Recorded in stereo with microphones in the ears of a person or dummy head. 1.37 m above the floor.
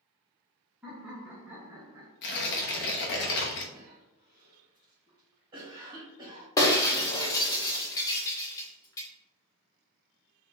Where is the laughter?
5° right (ahead or behind), 1.8 m; by 2.1 s 20° right (ahead or behind), 0.9 m.